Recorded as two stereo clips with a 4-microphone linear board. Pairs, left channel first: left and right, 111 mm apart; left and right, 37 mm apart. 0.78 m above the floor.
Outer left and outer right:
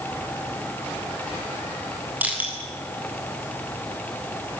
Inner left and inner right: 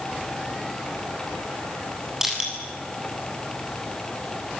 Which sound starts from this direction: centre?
Crushing, at 2.2 s.